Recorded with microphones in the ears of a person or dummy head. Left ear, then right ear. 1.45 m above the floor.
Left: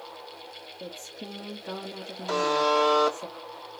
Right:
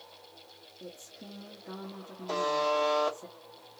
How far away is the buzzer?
About 1.6 m.